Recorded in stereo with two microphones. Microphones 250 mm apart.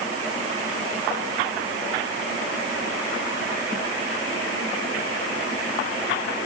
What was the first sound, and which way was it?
Only background noise.